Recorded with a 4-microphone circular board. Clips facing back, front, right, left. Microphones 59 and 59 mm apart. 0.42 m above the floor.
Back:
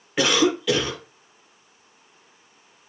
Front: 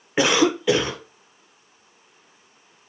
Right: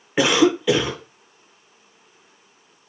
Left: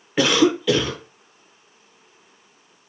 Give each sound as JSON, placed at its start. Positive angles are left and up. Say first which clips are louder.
{"t": 0.2, "sound": "a cough", "louder": "front 1 dB, right 1 dB", "azimuth_deg": -35, "distance_m": 0.8}